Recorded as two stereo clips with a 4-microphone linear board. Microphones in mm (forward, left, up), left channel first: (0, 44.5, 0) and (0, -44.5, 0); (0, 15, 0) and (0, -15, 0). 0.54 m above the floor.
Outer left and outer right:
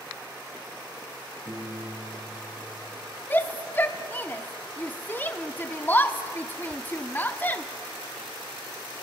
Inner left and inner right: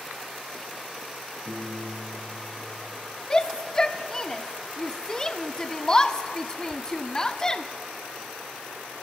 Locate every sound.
1.4 s a piano: 35° right (ahead or behind), 7 m
3.3 s a shout: 20° left (ahead or behind), 0.7 m